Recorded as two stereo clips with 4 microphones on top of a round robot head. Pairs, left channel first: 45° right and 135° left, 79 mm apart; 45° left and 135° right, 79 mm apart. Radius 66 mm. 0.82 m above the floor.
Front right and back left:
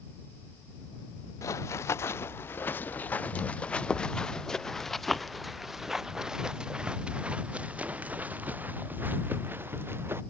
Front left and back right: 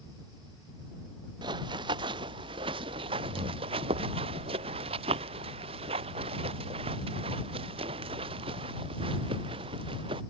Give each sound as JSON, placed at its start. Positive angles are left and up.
{"t": 1.4, "sound": "running footsteps", "azimuth_deg": -100}